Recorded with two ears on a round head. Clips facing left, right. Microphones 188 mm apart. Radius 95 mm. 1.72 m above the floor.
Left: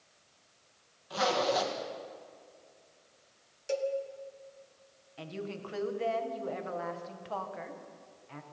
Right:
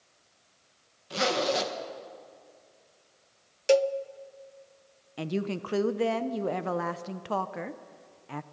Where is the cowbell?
70° right (ahead or behind), 0.5 m.